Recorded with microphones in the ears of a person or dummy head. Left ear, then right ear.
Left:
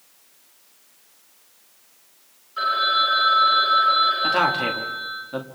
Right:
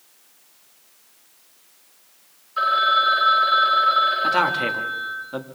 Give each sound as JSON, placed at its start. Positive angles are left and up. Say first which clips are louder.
{"t": 2.6, "sound": "a phone ringing", "louder": "right 2 dB", "side_deg": -25, "distance_m": 5.0}
{"t": 4.2, "sound": "a man speaking", "louder": "even", "side_deg": -5, "distance_m": 2.0}